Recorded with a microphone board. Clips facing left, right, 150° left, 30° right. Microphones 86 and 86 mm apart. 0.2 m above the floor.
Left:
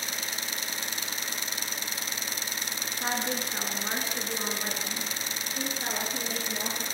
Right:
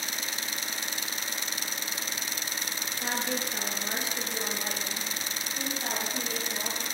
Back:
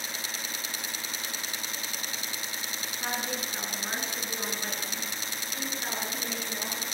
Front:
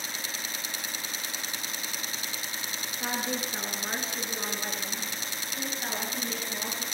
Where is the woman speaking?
50° left, 2 m; by 6.8 s 60° left, 4 m.